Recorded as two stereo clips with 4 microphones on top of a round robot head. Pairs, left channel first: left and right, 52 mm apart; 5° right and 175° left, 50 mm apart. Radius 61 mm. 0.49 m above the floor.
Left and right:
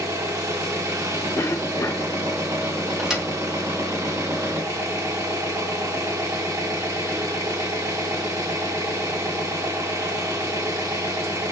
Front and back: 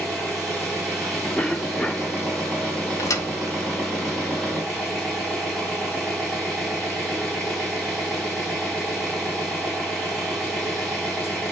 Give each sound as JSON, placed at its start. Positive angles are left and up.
{"t": 0.0, "sound": "an engine running", "azimuth_deg": -100, "distance_m": 3.5}
{"t": 1.4, "sound": "a cough", "azimuth_deg": 65, "distance_m": 1.8}
{"t": 3.0, "sound": "a thud", "azimuth_deg": -10, "distance_m": 1.6}